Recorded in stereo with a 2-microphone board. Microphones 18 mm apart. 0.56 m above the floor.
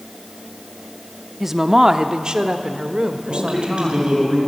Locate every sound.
1.4 s a woman speaking: 20° right (ahead or behind), 0.7 m; by 4.1 s 70° right (ahead or behind), 2.5 m
3.3 s a man speaking: 65° right (ahead or behind), 7 m